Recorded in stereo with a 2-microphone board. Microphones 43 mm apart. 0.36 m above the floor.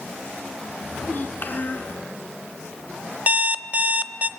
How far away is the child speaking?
About 3 m.